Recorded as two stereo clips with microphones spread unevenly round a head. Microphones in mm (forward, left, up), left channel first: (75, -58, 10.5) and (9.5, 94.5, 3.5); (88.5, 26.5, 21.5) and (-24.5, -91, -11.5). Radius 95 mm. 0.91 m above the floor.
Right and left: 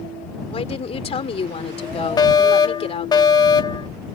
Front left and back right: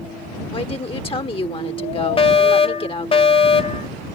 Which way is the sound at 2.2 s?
10° right.